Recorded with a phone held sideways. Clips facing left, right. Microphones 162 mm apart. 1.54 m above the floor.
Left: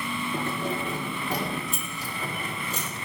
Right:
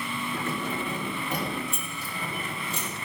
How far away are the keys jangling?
About 3 m.